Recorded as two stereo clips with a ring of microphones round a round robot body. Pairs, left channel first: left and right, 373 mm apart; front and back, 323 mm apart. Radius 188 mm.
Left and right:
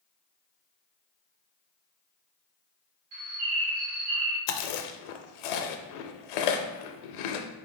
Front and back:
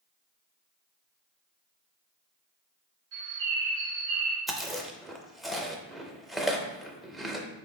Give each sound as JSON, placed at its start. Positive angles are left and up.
{"t": 3.1, "sound": "a bird", "azimuth_deg": -125, "distance_m": 1.0}
{"t": 4.5, "sound": "chewing", "azimuth_deg": 90, "distance_m": 0.5}